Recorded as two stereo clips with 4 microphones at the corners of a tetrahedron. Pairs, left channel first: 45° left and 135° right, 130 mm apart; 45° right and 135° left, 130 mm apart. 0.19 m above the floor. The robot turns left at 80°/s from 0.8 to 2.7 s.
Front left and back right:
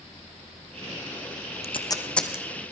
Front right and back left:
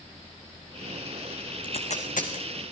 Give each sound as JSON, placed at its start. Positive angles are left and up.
{"t": 1.6, "sound": "tape being pulled", "azimuth_deg": 5, "distance_m": 2.5}